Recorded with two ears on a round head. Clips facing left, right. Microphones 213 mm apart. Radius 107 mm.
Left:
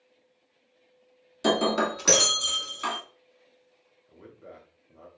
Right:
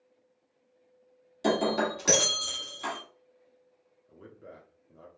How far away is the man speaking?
About 1.2 m.